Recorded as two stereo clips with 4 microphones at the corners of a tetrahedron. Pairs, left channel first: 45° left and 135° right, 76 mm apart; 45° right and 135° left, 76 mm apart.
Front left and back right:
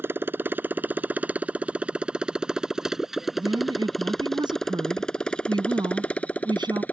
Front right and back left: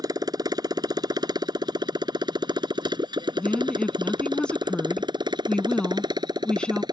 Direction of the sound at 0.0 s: 165° left.